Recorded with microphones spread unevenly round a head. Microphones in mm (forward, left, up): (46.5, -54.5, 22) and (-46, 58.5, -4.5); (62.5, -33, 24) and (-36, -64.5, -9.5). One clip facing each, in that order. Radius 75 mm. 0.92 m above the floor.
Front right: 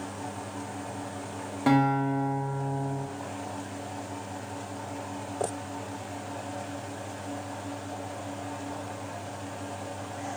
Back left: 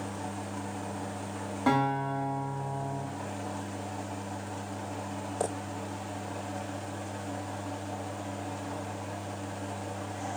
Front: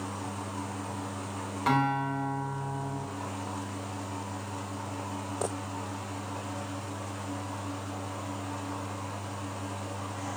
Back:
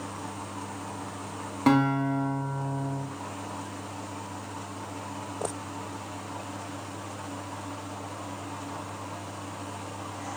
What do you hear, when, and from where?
1.7 s a guitar: 125° right, 0.8 m